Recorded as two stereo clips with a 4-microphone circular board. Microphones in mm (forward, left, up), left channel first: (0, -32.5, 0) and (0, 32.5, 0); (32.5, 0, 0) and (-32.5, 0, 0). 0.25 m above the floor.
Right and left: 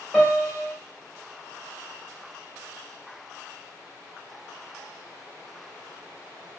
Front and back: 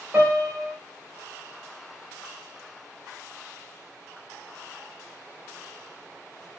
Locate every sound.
0.1 s a piano: straight behind, 1.7 m